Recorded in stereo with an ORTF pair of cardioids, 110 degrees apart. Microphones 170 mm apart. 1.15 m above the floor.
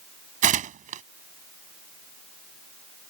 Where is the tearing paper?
50° right.